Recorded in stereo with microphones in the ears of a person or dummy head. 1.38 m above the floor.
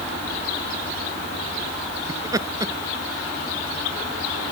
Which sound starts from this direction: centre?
Laughter, at 2.1 s.